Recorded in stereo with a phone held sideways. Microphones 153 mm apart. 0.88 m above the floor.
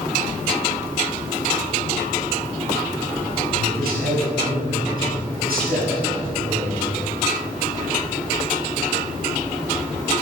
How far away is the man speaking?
About 5 m.